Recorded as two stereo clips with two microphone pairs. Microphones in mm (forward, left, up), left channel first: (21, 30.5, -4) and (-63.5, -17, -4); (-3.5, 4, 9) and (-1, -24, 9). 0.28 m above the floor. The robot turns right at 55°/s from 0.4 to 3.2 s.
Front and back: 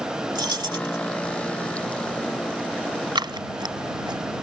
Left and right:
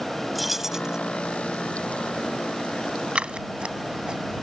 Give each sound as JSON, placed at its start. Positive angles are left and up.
{"t": 0.3, "sound": "keys jangling", "azimuth_deg": -175}
{"t": 3.1, "sound": "scissors", "azimuth_deg": -130}